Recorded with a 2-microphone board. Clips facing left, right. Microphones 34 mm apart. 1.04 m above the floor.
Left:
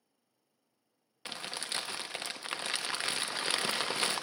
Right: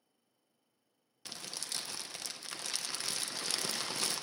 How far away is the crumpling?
About 0.6 m.